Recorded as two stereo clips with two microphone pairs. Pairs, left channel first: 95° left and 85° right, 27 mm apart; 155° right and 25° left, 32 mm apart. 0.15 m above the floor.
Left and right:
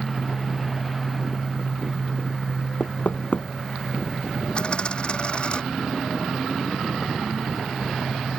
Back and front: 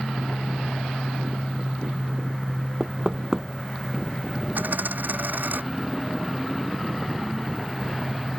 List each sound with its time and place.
2.8 s knocking: 105° left
4.5 s a dropped coin: 45° left